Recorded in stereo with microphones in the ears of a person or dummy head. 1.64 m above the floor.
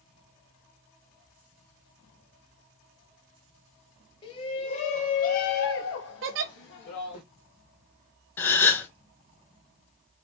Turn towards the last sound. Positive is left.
turn(degrees=10)  # may be behind; listen again after turning